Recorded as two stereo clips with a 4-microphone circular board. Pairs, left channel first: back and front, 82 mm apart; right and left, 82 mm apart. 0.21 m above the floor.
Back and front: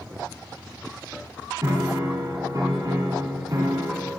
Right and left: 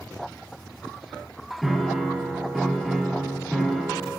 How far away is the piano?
About 1.7 m.